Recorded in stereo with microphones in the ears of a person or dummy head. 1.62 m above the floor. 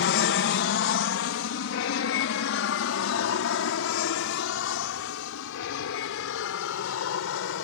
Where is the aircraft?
55° left (ahead or behind); by 7.7 s 65° left (ahead or behind).